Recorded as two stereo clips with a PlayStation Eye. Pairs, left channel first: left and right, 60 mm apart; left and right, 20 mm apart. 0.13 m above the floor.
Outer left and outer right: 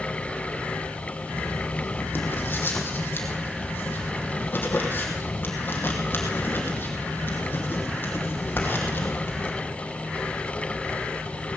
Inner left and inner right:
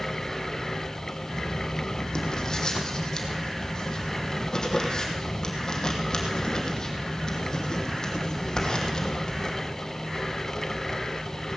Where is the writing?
40° left (ahead or behind), 2.5 m.